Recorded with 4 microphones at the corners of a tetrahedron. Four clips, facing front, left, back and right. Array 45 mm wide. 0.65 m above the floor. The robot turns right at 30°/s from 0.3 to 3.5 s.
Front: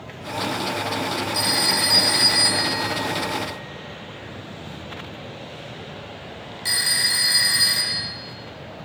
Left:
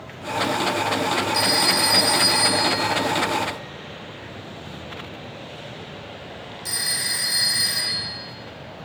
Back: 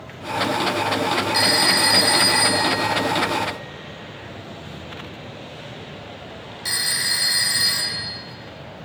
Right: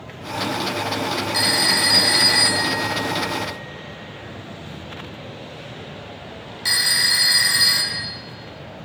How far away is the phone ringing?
About 1.7 m.